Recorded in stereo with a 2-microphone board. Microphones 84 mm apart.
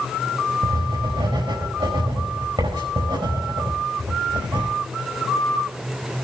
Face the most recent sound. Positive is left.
turn(degrees=-85)